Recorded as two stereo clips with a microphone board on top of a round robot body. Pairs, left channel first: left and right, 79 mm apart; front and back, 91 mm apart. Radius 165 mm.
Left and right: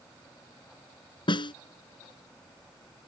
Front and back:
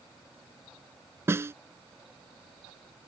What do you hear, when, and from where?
1.3 s a snare drum: 115° left